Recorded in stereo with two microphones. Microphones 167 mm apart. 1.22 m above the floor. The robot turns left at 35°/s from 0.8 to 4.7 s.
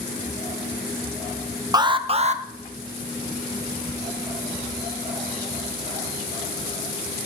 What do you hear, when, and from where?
1.7 s an alarm: 25° right (ahead or behind), 0.6 m; by 2.4 s 45° right (ahead or behind), 0.6 m
3.9 s ticking: 45° right (ahead or behind), 0.7 m